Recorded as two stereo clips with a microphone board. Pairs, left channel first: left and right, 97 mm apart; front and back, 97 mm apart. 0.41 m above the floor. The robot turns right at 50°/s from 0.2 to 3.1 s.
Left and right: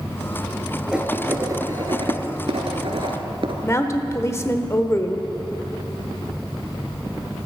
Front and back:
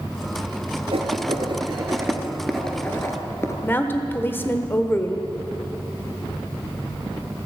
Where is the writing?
170° right, 1.6 m; by 3.5 s 65° right, 1.6 m.